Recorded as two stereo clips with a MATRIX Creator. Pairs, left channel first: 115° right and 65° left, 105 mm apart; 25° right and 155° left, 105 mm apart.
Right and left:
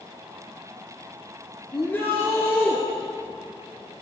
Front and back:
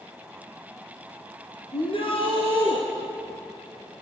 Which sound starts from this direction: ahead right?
A shout, at 1.7 s.